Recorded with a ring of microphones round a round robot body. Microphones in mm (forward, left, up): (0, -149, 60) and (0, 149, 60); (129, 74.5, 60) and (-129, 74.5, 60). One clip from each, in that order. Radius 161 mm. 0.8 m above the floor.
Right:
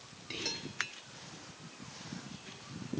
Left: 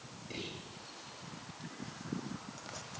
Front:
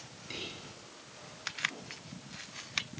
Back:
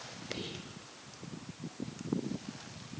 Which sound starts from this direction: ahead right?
Whispering, at 0.3 s.